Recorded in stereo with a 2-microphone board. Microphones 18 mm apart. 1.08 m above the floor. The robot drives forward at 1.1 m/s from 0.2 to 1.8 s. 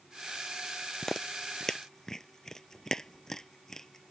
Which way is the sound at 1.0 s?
20° left (ahead or behind).